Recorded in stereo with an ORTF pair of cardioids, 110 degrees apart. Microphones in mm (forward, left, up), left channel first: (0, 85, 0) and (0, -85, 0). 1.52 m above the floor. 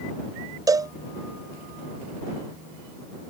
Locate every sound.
0.7 s a cowbell: 20° right